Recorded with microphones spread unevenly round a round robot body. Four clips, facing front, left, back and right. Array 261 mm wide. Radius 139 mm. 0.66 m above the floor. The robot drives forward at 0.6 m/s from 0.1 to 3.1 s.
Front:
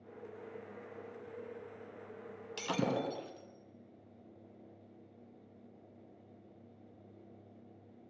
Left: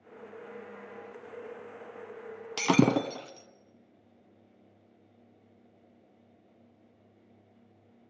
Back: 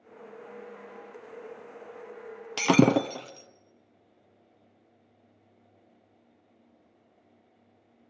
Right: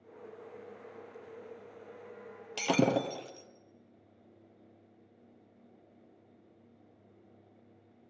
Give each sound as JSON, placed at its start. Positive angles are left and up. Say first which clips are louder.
{"t": 2.6, "sound": "breaking glass", "louder": "left 4 dB, back 14 dB", "azimuth_deg": 160, "distance_m": 1.4}